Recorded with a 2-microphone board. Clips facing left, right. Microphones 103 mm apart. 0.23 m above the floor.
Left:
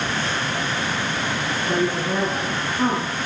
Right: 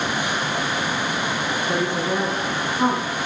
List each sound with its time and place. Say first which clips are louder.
1.7 s a woman speaking: left 2 dB; centre (ahead or behind), 1.9 m